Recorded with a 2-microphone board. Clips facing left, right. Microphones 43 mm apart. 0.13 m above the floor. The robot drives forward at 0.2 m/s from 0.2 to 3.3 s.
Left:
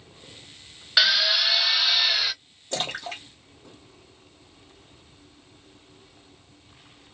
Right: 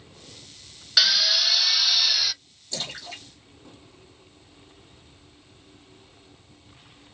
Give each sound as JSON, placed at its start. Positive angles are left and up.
{"t": 1.0, "sound": "a drill", "side_deg": 20, "distance_m": 0.7}
{"t": 2.7, "sound": "a splash", "side_deg": 55, "distance_m": 1.7}